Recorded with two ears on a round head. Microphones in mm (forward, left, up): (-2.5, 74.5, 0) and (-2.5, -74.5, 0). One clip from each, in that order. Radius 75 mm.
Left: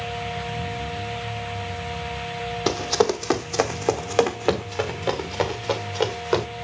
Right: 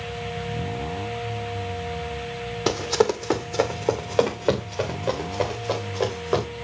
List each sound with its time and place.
2.7 s running footsteps: centre (ahead or behind), 0.8 m; by 6.5 s 65° left (ahead or behind), 3 m